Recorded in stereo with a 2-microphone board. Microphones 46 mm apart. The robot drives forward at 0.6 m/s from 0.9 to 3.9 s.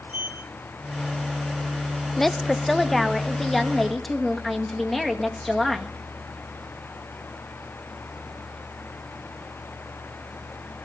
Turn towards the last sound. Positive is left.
turn(degrees=0)  # may be behind; listen again after turning